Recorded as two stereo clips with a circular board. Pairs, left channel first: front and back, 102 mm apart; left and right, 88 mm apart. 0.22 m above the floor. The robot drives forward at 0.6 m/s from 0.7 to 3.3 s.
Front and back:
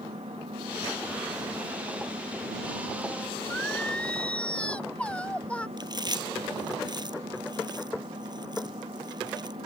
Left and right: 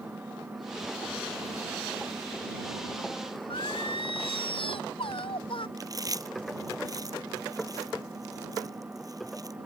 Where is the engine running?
160° right.